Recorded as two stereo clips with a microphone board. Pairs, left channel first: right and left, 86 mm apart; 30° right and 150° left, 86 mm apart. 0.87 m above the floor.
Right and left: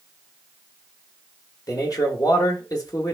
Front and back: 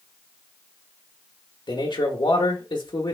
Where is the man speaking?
50° right, 0.9 m.